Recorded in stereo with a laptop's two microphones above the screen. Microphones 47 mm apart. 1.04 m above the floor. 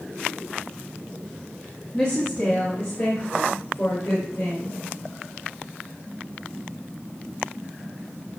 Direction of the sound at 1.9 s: 25° left (ahead or behind).